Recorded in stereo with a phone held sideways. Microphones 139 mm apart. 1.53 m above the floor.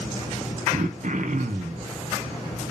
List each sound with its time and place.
0.7 s throat clearing: 65° right (ahead or behind), 0.6 m